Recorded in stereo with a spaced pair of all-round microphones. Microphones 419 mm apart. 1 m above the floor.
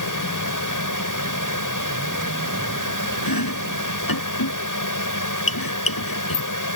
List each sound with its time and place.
0.0 s a fan: 45° left (ahead or behind)
3.2 s chopping: 55° left (ahead or behind)